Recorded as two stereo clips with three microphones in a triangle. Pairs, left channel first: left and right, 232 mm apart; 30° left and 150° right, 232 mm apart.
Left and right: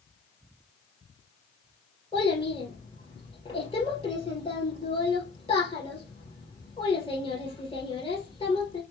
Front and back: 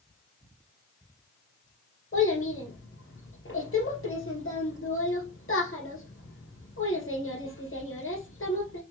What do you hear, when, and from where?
2.1 s a child speaking: 25° left, 1.8 m